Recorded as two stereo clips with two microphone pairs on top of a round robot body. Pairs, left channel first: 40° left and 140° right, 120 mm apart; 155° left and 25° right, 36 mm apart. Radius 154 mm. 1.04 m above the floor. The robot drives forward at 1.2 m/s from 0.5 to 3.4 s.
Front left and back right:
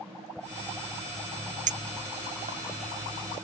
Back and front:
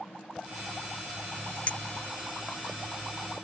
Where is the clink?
150° right; by 2.6 s 165° right.